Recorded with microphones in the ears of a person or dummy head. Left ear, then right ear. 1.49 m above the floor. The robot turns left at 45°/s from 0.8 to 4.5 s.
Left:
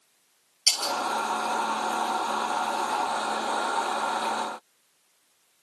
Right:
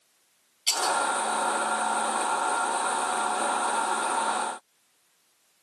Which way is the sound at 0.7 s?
40° left (ahead or behind).